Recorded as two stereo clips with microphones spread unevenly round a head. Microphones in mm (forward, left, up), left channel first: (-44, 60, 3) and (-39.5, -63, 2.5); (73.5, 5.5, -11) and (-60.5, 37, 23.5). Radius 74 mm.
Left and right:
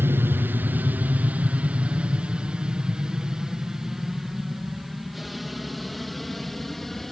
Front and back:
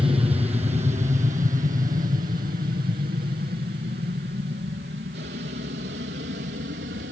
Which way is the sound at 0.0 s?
145° right.